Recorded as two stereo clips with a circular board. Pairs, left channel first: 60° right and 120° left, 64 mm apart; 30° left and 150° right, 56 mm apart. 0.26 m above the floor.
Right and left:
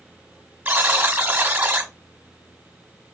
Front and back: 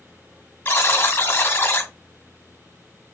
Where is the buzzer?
65° left, 1.3 m.